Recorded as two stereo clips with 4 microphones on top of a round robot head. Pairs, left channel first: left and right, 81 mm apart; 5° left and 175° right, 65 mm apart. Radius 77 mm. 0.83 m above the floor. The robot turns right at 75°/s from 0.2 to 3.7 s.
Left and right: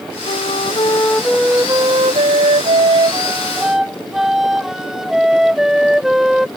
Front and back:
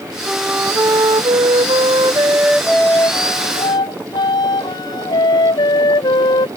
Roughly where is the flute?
Left.